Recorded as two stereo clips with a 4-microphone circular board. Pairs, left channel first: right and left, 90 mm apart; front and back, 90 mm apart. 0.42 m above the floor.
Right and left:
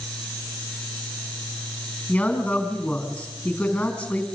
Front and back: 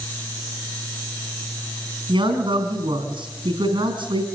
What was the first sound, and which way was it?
A man speaking, 165° right.